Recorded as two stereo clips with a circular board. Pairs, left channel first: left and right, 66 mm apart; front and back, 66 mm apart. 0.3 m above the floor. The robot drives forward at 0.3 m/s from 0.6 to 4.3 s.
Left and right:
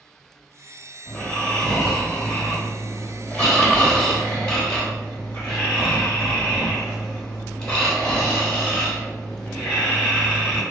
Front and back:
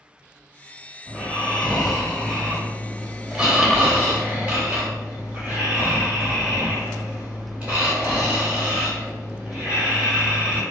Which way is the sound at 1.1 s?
45° left.